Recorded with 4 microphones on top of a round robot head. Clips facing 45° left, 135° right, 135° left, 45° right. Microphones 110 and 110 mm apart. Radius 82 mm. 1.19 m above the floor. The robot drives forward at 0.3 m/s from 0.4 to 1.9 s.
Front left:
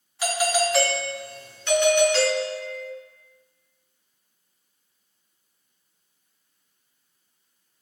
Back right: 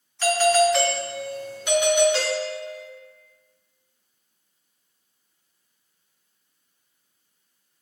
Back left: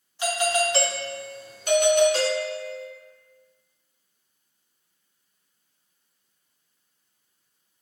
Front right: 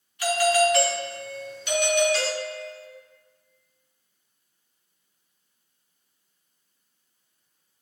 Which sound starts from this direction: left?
A doorbell, at 0.2 s.